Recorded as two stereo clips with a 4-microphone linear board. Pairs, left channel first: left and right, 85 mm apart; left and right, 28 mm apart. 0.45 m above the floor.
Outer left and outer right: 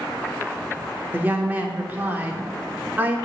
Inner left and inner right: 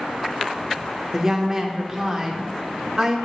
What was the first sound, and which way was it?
A woman speaking, 20° right (ahead or behind).